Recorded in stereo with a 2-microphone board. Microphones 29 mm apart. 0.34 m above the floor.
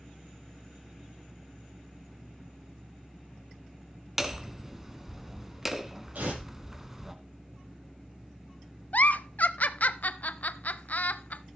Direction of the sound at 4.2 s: 15° right (ahead or behind).